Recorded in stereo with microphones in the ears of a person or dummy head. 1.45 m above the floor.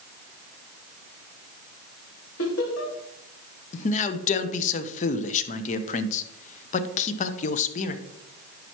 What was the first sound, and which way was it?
Laughter, 80° left.